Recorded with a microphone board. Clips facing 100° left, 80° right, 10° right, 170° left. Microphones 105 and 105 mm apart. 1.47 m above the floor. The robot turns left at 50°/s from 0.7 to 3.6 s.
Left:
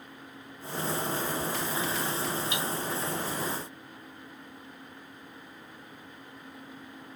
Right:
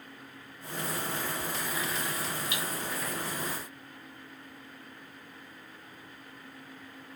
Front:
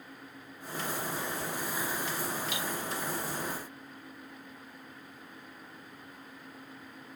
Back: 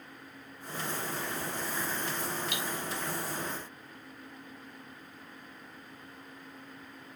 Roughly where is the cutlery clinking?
Behind.